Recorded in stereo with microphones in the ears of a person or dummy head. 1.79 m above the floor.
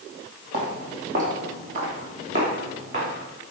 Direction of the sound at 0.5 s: 55° right (ahead or behind).